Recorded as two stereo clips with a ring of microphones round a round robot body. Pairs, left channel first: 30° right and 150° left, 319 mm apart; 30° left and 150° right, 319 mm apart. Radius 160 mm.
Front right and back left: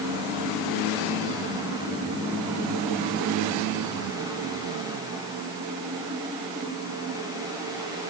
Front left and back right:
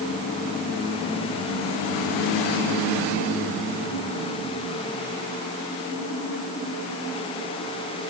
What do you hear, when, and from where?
Only background noise.